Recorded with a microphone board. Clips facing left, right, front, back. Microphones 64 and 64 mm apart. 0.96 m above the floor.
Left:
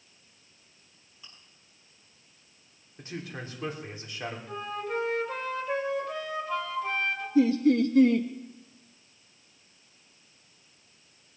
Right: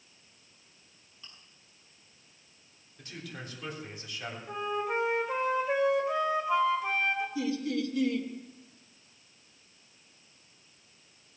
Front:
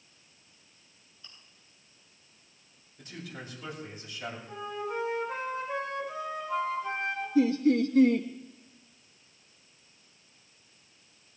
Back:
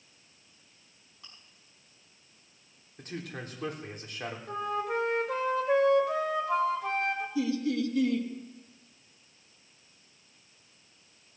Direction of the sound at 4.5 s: 165° right.